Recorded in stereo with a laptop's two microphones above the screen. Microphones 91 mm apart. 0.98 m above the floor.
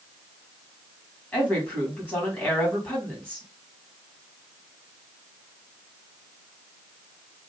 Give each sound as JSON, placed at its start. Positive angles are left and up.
{"t": 1.3, "sound": "a woman speaking", "side_deg": 20, "distance_m": 1.9}